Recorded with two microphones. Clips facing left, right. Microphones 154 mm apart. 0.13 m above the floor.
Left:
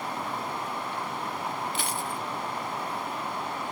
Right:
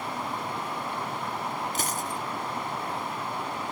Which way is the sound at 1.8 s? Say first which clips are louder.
Right 1 dB; 40° right (ahead or behind).